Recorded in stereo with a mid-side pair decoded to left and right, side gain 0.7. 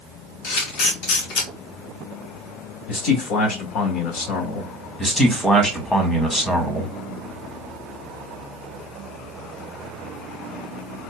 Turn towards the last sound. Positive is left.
turn(degrees=15)